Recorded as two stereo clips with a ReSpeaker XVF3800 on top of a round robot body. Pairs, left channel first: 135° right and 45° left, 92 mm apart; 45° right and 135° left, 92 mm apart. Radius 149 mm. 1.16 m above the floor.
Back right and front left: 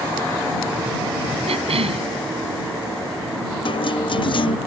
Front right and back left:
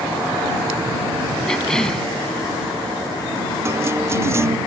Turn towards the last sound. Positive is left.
turn(degrees=-165)